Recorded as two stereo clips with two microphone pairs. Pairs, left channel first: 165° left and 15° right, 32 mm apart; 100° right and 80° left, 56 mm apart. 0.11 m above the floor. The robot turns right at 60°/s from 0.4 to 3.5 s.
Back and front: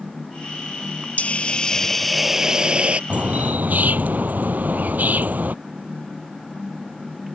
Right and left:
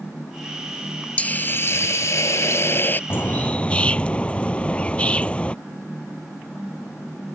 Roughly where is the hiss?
Behind.